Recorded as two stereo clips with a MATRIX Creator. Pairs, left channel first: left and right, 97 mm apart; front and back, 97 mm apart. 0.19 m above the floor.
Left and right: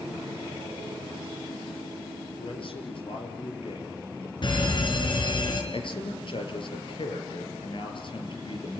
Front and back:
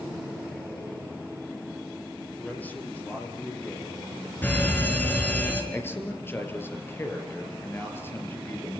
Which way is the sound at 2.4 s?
70° left.